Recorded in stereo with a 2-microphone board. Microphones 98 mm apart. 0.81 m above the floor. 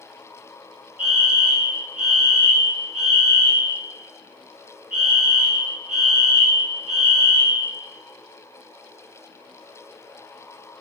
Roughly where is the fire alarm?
Left.